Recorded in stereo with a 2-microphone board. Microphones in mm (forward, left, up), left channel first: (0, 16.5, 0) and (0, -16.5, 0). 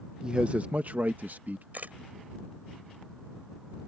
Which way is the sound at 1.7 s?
55° right (ahead or behind).